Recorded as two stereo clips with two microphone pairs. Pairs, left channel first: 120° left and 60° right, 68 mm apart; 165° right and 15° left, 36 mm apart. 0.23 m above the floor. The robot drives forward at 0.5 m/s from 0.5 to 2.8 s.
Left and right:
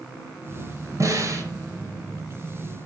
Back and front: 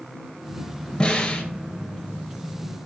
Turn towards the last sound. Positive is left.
turn(degrees=-105)